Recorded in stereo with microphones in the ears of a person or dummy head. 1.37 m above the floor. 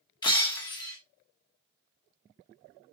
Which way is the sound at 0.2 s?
25° left (ahead or behind).